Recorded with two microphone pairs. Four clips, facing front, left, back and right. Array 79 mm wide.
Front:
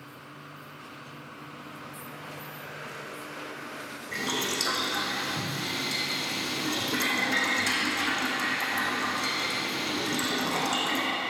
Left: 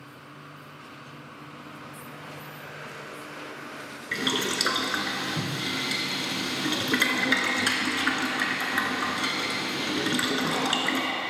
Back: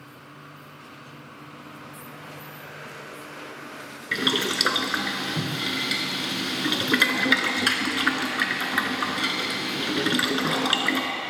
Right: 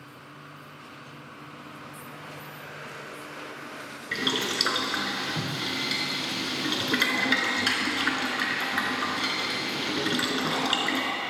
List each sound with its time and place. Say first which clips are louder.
4.1 s boiling: left 1 dB, back 6 dB; 170° left, 0.8 m